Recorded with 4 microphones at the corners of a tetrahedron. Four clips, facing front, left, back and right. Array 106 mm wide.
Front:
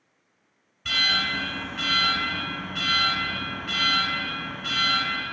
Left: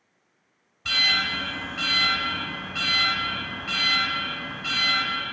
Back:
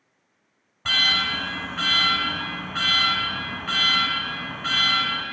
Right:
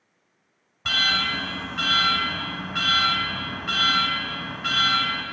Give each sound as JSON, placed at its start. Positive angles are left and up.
{"t": 0.8, "sound": "an alarm", "azimuth_deg": -150, "distance_m": 1.6}